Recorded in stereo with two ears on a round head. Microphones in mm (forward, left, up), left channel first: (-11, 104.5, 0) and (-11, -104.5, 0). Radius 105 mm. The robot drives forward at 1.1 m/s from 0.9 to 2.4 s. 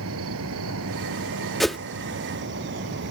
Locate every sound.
0.0 s an insect: 70° right (ahead or behind); by 3.1 s 55° right (ahead or behind)
1.6 s a whoosh: centre (ahead or behind)